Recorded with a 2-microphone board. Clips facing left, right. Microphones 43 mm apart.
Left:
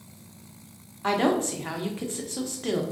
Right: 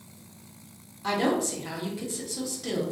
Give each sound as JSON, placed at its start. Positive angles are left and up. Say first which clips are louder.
{"t": 1.0, "sound": "a woman speaking", "louder": "left 2 dB", "side_deg": 40, "distance_m": 0.5}